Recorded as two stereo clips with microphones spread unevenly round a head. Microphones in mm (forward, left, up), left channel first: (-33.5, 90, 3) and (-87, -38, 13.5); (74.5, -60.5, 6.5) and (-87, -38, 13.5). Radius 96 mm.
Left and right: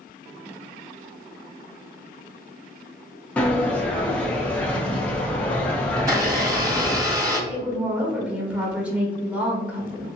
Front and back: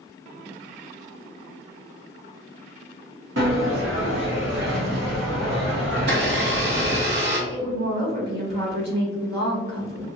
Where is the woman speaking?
165° left, 1.4 m.